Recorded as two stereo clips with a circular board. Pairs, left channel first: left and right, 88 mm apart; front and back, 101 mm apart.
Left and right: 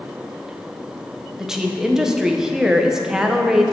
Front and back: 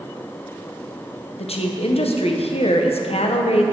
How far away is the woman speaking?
About 0.9 m.